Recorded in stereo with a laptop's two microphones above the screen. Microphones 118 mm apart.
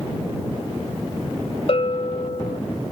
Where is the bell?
60° left (ahead or behind).